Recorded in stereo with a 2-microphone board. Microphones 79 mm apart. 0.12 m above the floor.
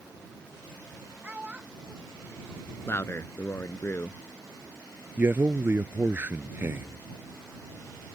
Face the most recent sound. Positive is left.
turn(degrees=-25)  # may be behind; listen again after turning